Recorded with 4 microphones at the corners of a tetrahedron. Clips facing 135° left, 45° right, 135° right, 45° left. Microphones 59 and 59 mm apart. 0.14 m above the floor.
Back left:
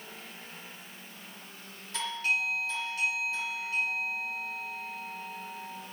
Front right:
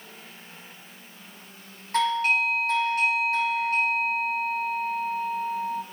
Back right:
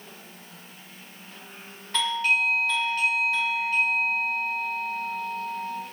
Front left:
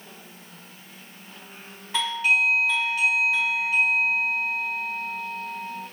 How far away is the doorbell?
About 3.5 m.